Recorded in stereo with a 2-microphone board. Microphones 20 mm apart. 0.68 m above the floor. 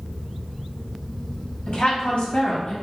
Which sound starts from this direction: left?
A woman speaking, at 1.7 s.